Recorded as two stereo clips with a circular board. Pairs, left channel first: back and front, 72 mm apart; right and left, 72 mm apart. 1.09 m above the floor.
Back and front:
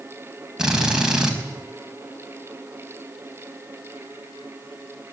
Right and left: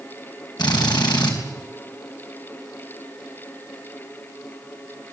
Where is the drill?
80° right, 4.5 m.